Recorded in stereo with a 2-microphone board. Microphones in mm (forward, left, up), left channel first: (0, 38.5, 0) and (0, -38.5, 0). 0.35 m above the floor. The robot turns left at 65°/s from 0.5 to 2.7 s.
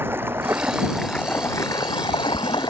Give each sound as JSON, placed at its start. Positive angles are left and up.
{"t": 0.0, "sound": "running water", "azimuth_deg": -150}